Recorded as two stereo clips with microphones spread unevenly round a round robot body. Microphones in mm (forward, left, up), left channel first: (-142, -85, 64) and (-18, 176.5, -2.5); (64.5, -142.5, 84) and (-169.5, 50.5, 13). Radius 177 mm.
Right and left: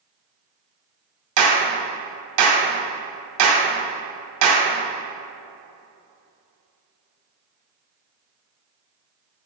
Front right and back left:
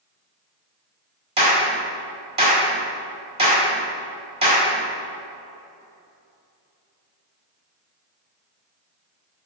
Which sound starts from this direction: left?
A clap, at 1.4 s.